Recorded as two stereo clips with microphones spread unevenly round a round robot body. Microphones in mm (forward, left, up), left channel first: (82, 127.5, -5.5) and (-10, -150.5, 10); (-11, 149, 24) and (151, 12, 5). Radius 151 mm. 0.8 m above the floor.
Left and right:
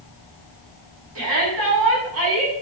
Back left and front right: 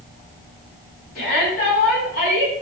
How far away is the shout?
About 7.5 m.